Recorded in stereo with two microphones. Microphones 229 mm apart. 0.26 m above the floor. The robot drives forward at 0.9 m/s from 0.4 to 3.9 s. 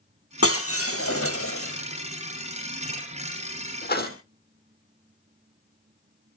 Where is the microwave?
No microwave in this recording.